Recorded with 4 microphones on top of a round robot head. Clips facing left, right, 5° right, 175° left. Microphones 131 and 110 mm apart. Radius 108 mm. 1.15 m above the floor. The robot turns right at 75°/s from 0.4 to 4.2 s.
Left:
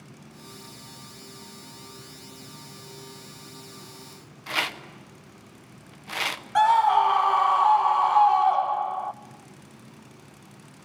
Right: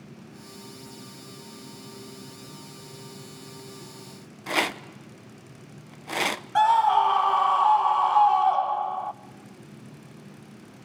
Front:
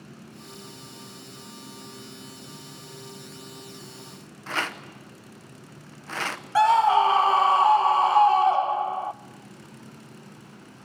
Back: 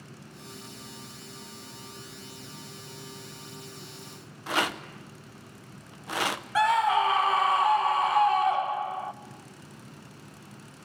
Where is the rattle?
115° right, 0.9 m.